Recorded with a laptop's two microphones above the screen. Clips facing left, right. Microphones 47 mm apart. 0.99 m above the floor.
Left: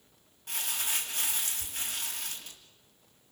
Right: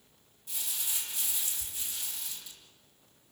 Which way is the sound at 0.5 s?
70° left (ahead or behind).